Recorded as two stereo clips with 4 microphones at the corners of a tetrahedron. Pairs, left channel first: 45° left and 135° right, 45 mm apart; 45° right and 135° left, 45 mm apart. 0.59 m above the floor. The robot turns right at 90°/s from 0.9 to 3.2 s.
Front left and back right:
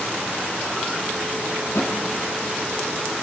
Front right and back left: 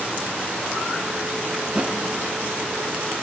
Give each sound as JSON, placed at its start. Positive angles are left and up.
{"t": 1.6, "sound": "a thud", "azimuth_deg": 50, "distance_m": 3.0}